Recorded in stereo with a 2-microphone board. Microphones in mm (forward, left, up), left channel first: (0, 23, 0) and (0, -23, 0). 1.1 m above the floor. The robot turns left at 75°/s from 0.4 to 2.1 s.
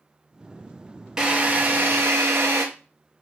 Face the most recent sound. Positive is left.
turn(degrees=-80)